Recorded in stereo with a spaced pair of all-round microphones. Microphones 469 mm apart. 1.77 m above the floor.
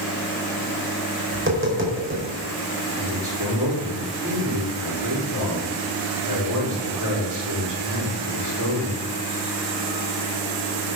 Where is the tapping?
25° right (ahead or behind), 4.5 m.